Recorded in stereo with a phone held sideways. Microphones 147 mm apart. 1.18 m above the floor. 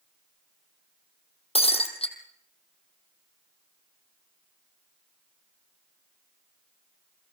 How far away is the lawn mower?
I don't hear a lawn mower.